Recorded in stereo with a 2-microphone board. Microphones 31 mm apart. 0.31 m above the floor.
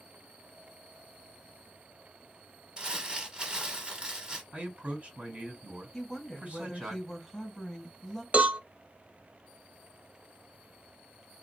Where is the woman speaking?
10° left (ahead or behind), 1.8 m.